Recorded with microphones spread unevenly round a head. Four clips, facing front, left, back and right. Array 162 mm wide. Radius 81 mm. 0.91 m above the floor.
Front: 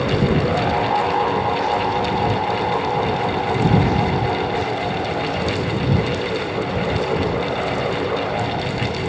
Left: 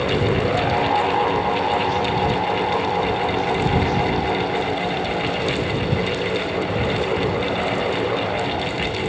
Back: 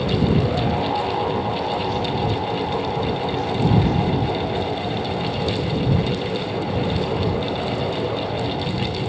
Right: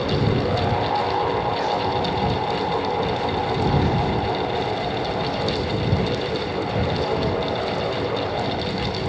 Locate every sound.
Only background noise.